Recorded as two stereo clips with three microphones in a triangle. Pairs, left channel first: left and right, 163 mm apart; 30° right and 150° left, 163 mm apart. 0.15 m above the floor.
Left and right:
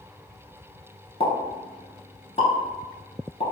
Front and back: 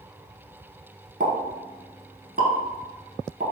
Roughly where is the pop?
Behind left.